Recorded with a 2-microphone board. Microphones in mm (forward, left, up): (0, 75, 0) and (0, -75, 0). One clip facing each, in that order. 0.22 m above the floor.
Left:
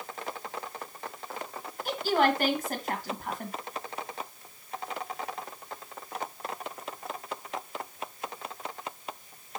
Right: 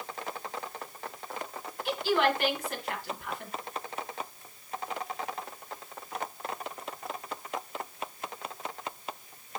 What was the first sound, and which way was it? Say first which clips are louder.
A woman speaking: left 1 dB; 40° left (ahead or behind).